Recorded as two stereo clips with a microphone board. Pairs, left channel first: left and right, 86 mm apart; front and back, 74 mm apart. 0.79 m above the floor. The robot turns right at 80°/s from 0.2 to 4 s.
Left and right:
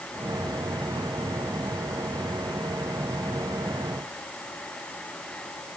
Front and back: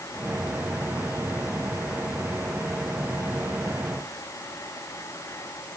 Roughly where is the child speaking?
I don't hear a child speaking.